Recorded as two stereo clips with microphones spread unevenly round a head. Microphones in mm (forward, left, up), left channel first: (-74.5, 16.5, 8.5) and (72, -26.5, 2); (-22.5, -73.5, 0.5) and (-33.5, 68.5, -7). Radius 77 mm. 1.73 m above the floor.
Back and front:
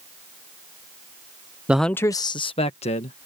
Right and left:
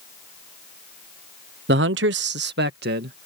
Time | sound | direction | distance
1.7 | a man speaking | 65° left | ?